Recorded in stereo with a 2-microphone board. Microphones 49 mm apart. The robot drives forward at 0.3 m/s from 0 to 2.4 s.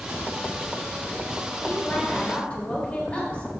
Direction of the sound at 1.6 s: 30° left (ahead or behind).